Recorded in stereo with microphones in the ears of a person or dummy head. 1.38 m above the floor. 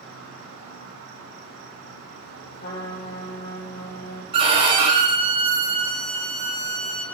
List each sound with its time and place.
0.0 s an insect: 60° right (ahead or behind), 2.5 m
2.6 s a trumpet: 55° left (ahead or behind), 2 m
4.3 s a violin: 30° right (ahead or behind), 1.2 m